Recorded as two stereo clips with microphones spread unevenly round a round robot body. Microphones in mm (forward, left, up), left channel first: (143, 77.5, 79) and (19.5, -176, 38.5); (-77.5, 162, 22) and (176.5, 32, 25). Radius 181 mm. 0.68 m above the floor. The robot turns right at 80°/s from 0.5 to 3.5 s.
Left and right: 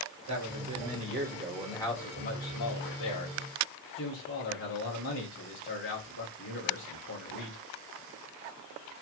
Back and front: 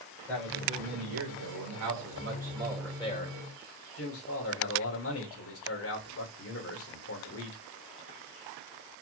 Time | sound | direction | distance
0.3 | a man speaking | 125° right | 3 m